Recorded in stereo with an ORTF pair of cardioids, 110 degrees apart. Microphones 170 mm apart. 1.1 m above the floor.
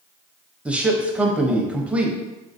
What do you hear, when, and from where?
0.7 s a man speaking: 10° right, 0.6 m